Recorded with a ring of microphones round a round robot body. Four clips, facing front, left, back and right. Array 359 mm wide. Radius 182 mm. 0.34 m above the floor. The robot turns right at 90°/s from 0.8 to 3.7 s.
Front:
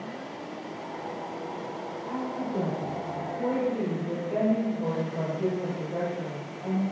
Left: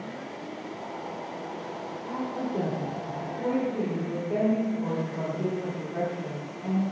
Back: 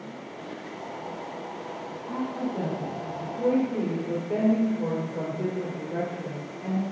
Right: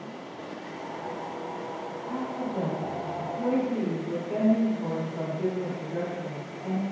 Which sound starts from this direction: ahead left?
A woman speaking, at 2.0 s.